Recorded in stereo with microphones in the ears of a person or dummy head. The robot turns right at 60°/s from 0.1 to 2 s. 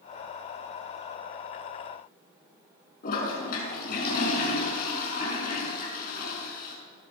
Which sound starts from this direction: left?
A toilet flushing, at 3.0 s.